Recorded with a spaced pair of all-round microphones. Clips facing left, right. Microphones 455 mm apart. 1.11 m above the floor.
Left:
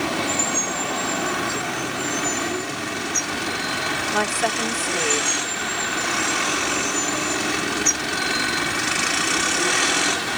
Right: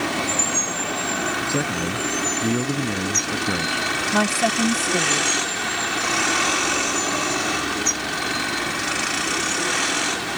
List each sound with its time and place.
1.5 s a man speaking: 90° right
4.1 s a woman speaking: 55° right (ahead or behind)